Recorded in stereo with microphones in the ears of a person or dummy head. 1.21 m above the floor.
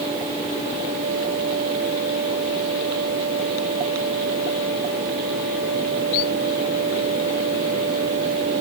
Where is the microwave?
No microwave in this recording.